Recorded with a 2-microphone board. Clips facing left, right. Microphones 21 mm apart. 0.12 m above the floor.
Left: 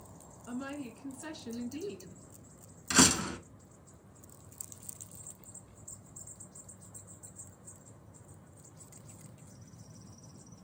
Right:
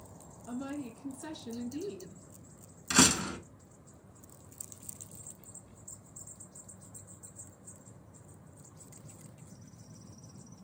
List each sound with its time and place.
0.5 s a woman speaking: 25° left (ahead or behind), 1.1 m
2.9 s a door slam: centre (ahead or behind), 0.8 m